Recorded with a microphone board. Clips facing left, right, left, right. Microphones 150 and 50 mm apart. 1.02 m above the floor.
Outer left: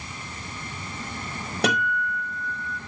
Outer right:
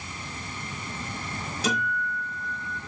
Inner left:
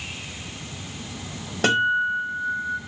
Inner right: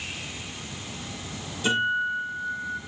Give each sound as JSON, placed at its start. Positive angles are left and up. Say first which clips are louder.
{"t": 1.6, "sound": "a guitar", "louder": "outer left 4 dB, inner left 4 dB", "side_deg": 70, "distance_m": 5.0}